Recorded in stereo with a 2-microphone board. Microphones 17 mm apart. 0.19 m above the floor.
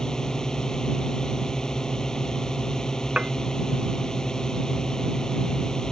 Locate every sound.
0.0 s a drone: 35° left (ahead or behind)
3.2 s dishes clattering: 70° right (ahead or behind)